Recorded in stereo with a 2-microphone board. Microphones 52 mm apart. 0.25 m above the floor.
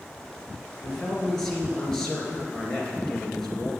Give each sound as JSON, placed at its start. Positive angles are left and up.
{"t": 0.8, "sound": "a man speaking", "side_deg": 10, "distance_m": 3.5}